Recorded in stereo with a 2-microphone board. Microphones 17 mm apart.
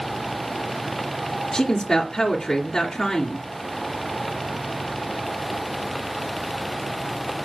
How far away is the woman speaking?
About 2 m.